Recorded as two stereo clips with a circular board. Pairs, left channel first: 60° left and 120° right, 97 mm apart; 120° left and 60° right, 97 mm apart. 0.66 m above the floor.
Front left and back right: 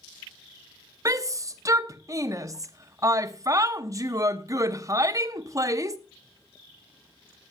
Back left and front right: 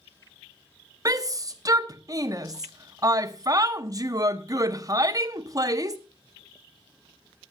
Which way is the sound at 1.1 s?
85° right.